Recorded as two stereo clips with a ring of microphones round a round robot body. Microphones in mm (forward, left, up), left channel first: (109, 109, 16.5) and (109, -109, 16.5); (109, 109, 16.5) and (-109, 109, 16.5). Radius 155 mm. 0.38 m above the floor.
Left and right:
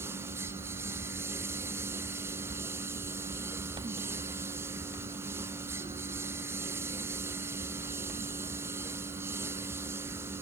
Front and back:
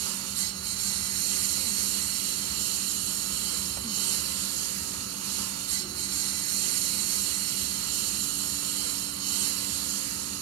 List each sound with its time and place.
0.0 s a lawn mower: 175° right